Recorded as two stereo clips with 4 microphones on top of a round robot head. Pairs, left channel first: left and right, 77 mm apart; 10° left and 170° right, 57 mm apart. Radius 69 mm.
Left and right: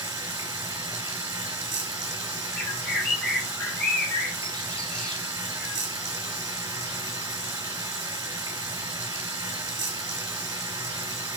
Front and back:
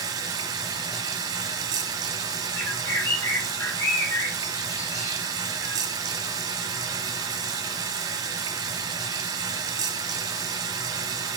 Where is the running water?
145° right, 1.0 m.